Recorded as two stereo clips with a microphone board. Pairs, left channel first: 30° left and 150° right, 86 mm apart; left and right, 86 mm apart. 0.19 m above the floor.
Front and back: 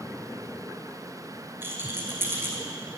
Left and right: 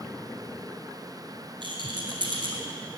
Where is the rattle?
90° right, 1.2 m.